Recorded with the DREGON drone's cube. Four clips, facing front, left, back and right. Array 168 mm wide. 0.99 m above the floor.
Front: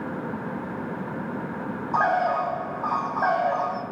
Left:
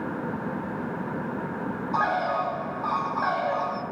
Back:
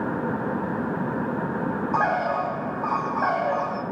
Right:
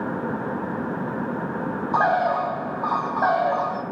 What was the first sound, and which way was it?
A bird, 90° right.